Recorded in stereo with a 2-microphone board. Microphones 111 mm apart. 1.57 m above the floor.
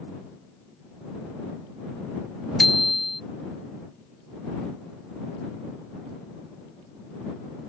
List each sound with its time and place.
2.6 s a bicycle bell: centre (ahead or behind)